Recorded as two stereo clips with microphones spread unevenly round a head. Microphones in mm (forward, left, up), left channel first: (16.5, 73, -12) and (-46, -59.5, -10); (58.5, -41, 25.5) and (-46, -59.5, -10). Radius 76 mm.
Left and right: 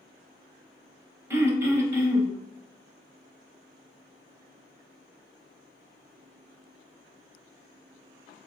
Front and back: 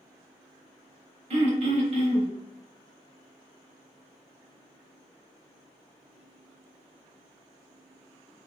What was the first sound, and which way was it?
Throat clearing, 175° right.